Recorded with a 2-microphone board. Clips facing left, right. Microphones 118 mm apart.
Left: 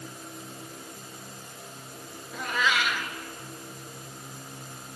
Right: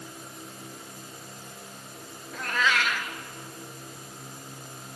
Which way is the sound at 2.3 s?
10° left (ahead or behind).